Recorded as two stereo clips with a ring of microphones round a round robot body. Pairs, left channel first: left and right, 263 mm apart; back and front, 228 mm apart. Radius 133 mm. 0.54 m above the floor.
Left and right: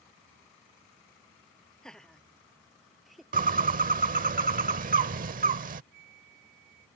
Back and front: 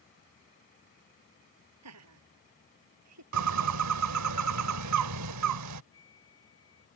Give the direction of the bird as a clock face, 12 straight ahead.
1 o'clock.